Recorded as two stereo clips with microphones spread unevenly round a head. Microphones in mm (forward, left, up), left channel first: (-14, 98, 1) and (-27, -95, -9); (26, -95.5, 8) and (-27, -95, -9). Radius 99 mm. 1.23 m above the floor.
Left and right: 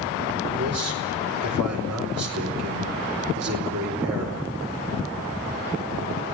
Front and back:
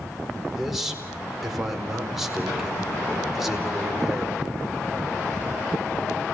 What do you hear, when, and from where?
0.5 s a man speaking: 95° right, 4.5 m